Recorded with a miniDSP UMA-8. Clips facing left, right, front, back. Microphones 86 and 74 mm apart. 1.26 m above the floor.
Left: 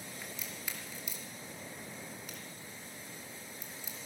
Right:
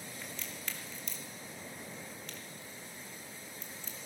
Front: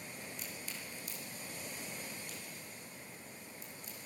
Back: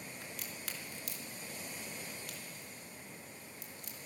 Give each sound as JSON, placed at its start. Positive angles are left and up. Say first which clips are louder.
{"t": 0.2, "sound": "a crack", "louder": "right 1 dB, even", "azimuth_deg": 170, "distance_m": 2.5}